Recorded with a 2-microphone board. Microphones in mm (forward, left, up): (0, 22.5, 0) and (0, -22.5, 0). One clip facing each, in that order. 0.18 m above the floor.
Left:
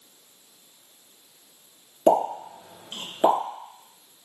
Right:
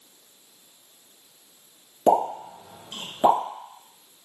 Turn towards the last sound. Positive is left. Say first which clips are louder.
# even
turn(degrees=20)  # may be behind; listen again after turning